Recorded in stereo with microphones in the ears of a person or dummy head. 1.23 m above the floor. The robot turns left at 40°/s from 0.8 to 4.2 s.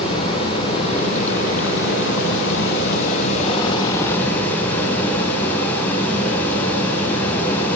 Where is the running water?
150° left, 9 m; by 7.8 s 15° left, 9 m.